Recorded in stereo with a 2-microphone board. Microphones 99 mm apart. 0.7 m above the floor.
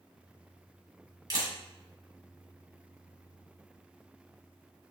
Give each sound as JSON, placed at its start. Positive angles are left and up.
{"t": 1.3, "sound": "a camera shutter", "side_deg": -45, "distance_m": 1.9}